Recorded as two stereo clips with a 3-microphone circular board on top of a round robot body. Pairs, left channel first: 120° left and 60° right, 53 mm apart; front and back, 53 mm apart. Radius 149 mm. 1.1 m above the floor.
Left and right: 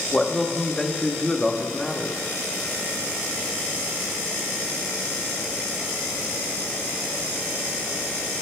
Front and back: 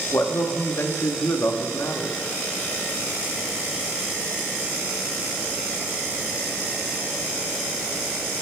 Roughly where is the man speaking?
Ahead left.